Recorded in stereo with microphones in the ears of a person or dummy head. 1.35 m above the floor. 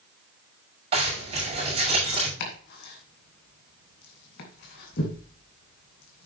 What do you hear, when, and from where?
0.9 s a zipper: 30° right (ahead or behind), 6 m
2.4 s chopping: 60° left (ahead or behind), 2.5 m